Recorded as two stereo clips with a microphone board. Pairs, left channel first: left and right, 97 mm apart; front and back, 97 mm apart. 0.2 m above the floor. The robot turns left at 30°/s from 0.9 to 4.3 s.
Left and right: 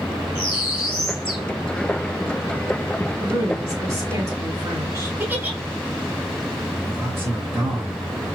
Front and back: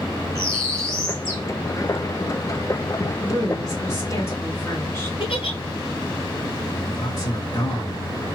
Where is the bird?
125° left, 1.0 m; by 1.4 s 110° left, 1.0 m.